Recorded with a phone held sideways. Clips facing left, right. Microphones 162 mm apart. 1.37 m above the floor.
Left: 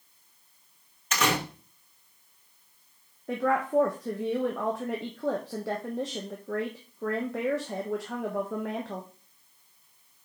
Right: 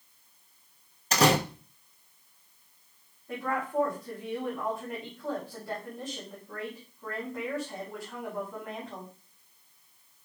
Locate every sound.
1.1 s a door slam: 35° right (ahead or behind), 0.9 m
3.3 s a woman speaking: 80° left, 1.0 m